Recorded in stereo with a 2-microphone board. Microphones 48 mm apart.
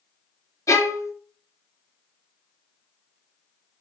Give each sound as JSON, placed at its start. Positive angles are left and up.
{"t": 0.7, "sound": "a violin", "side_deg": 75, "distance_m": 0.6}